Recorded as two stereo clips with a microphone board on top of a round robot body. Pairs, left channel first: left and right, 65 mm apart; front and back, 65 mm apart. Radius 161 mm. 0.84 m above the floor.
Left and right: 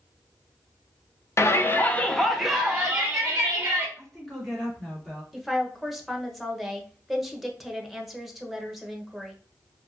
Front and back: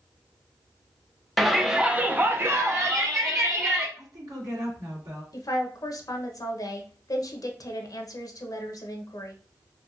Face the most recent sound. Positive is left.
turn(degrees=0)